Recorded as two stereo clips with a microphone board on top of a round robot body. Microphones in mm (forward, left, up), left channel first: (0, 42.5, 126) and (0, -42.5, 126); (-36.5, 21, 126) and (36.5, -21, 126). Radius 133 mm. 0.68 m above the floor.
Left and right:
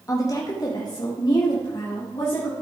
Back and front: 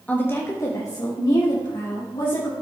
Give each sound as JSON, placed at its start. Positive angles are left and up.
{"t": 0.1, "sound": "a woman speaking", "azimuth_deg": 90, "distance_m": 1.2}